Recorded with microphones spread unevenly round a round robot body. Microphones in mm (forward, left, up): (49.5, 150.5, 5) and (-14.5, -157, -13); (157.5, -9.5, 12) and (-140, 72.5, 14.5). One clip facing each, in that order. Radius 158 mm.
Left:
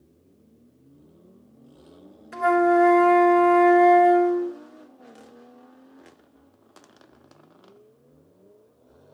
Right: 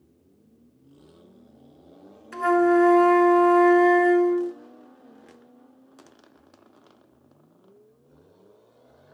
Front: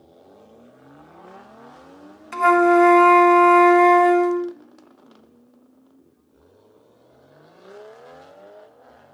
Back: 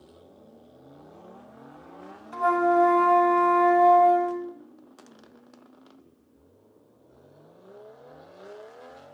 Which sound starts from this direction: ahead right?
A flute, at 2.3 s.